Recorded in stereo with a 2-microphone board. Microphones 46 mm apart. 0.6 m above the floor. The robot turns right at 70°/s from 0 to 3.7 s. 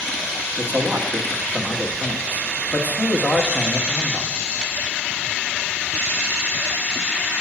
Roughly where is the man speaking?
Ahead right.